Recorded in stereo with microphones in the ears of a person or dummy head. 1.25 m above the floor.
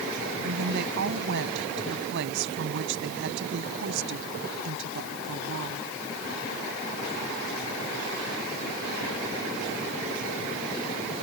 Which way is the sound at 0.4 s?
60° right (ahead or behind).